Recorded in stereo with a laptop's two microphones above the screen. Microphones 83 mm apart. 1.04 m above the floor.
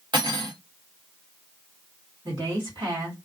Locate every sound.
0.1 s cutlery clinking: 65° right (ahead or behind), 1.0 m
2.2 s a woman speaking: 65° right (ahead or behind), 1.7 m